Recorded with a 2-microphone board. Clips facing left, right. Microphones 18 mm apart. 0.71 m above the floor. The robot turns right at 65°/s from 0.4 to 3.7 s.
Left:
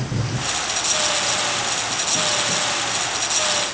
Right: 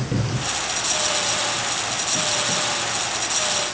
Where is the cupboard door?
75° right (ahead or behind), 1.5 m; by 0.6 s 80° right, 1.5 m.